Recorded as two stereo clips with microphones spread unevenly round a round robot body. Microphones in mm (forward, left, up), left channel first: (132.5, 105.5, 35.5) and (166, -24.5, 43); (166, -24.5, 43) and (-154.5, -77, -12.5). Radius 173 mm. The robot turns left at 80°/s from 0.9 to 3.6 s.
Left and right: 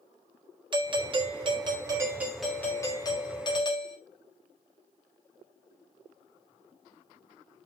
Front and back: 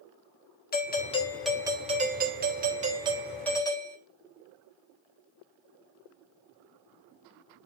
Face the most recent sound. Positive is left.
turn(degrees=95)